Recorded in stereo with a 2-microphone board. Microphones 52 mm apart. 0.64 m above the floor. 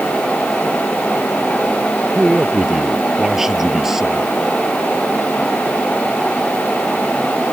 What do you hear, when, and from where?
2.1 s a man speaking: 10° right (ahead or behind)